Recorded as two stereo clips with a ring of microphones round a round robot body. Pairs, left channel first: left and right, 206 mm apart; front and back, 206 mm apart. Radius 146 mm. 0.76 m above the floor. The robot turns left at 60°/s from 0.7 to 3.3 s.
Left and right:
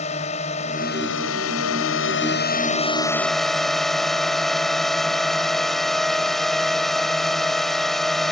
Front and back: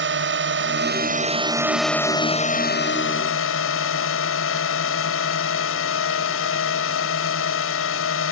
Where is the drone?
160° left; by 8.3 s straight ahead.